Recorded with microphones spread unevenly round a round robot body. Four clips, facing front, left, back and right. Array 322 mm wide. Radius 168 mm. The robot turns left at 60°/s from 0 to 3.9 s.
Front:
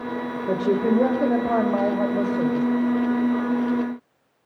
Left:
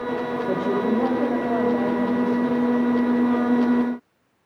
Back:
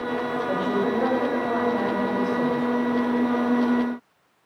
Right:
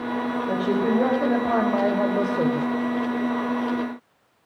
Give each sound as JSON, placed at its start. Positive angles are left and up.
{"t": 0.5, "sound": "a woman speaking", "azimuth_deg": 30, "distance_m": 3.5}